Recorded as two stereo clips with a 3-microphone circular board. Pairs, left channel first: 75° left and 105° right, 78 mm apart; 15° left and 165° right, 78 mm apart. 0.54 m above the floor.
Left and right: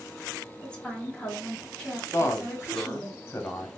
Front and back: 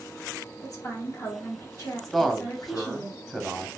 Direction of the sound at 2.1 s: 100° left.